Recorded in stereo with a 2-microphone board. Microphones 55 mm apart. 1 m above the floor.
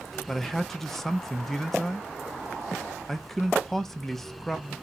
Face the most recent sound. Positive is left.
turn(degrees=5)  # may be behind; listen again after turning